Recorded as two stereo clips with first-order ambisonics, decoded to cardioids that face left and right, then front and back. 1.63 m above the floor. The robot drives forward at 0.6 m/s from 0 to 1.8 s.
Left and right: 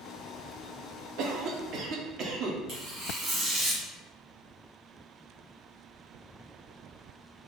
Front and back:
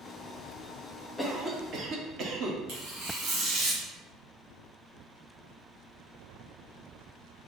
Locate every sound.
1.2 s a cough: 85° right, 0.5 m; by 2.6 s 130° right, 0.6 m
2.7 s tearing paper: 155° right, 1.1 m